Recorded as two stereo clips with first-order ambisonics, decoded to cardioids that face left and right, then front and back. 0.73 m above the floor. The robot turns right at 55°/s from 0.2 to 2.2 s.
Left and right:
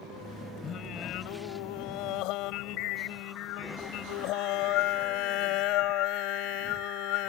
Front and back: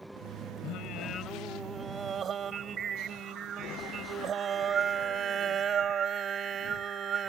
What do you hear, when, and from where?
0.6 s singing: 30° left; by 7.3 s 115° left